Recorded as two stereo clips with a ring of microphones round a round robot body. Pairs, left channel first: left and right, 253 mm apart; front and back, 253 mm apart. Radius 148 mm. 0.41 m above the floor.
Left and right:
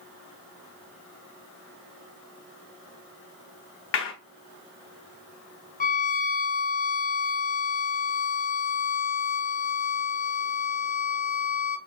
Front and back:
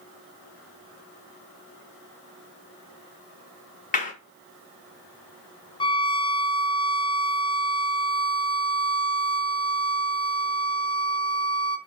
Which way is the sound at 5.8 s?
60° left.